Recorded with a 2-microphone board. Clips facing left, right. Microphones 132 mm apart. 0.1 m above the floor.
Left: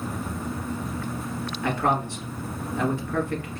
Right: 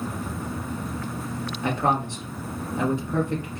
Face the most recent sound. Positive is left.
turn(degrees=-20)  # may be behind; listen again after turning